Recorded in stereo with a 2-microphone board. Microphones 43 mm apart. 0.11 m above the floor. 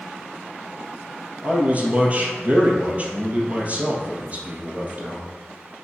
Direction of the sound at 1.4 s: 30° right (ahead or behind).